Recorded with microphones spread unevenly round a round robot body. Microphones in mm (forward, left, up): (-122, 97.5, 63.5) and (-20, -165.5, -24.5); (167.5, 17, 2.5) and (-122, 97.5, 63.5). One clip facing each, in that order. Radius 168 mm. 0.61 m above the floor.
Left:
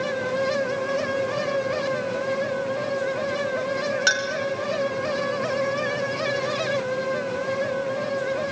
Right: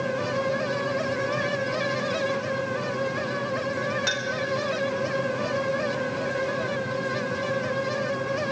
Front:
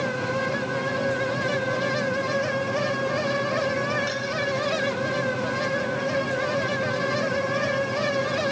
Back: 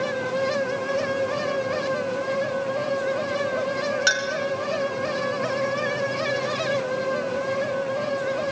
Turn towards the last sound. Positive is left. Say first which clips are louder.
# left 3 dB, back 1 dB
turn(degrees=160)